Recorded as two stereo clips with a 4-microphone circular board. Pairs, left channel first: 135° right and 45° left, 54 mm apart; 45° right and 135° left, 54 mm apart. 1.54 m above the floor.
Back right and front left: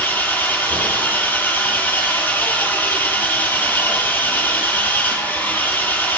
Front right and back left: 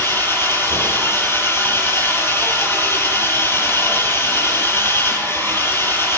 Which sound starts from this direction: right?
An engine running, at 0.0 s.